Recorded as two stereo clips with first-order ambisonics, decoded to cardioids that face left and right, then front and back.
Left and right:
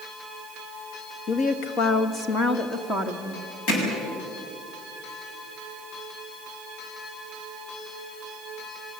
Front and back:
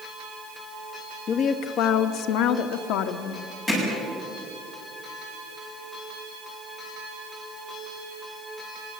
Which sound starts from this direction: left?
Hammering, at 3.7 s.